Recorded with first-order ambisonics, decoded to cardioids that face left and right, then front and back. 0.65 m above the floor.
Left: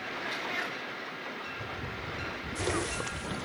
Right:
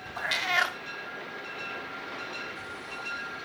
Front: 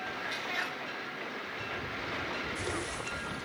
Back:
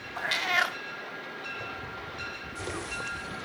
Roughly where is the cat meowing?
Behind right.